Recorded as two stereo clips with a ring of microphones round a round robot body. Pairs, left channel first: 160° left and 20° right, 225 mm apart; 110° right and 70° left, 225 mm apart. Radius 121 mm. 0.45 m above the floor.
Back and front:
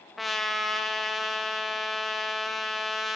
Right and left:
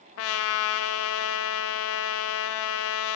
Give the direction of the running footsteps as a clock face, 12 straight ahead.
No running footsteps in this recording.